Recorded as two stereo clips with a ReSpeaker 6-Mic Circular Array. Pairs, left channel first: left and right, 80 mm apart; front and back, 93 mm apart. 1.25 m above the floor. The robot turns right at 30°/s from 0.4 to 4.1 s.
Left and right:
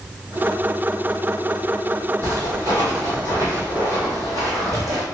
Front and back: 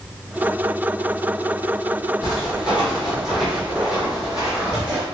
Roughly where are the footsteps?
Right.